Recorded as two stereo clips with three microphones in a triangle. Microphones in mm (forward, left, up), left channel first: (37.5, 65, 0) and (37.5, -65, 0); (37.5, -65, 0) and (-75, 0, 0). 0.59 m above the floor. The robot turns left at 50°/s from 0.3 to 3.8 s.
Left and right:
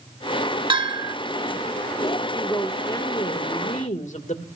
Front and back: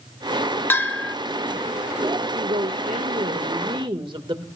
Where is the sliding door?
I don't hear a sliding door.